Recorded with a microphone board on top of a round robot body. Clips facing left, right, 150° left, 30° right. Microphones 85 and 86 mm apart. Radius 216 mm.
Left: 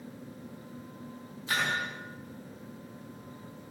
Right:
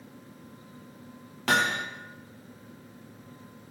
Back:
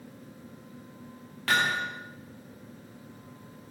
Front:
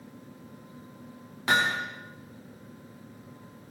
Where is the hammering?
100° right, 8 m.